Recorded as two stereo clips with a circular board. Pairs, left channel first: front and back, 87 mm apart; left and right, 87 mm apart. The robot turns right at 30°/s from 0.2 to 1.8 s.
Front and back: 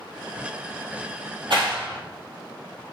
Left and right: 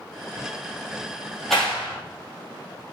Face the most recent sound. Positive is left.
turn(degrees=-175)